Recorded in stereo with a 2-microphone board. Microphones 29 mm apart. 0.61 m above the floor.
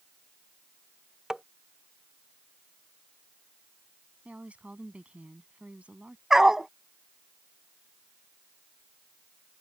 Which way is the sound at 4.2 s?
45° right (ahead or behind).